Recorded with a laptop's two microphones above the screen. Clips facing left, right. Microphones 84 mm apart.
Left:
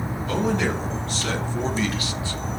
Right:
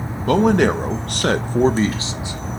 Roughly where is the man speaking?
Right.